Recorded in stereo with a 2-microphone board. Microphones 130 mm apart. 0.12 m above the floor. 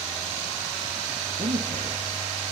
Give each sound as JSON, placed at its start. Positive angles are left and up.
{"t": 1.4, "sound": "a man speaking", "side_deg": -55, "distance_m": 3.0}